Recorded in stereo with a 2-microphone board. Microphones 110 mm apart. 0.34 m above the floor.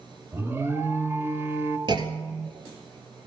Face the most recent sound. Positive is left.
turn(degrees=-45)  # may be behind; listen again after turning